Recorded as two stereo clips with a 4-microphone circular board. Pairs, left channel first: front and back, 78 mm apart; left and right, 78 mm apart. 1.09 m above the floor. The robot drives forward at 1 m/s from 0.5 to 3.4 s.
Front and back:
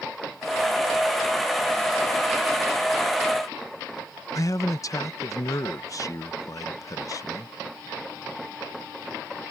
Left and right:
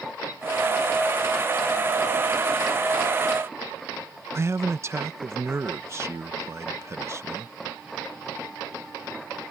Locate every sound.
4.3 s a man speaking: 40° right